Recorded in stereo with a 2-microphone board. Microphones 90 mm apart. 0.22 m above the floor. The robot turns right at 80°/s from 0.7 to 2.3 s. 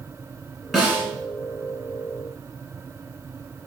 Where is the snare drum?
5° right (ahead or behind), 1.0 m; by 1.1 s 25° right (ahead or behind), 1.0 m.